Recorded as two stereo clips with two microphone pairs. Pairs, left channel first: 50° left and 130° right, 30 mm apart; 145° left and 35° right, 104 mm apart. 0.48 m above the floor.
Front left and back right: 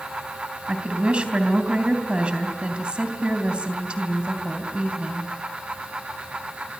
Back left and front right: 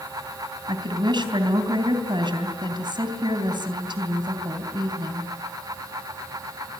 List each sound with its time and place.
0.7 s a woman speaking: 75° right, 3.5 m